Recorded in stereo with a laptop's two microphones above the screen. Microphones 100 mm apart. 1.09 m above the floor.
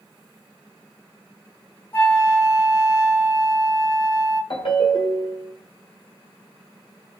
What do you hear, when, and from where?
1.9 s a flute: 25° left (ahead or behind), 1.3 m
4.5 s a ringtone: 65° left (ahead or behind), 1.2 m